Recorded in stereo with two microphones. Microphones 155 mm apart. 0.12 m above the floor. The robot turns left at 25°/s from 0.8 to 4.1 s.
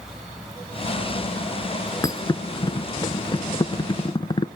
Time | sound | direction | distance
2.0 | a thud | 25° left (ahead or behind) | 0.6 m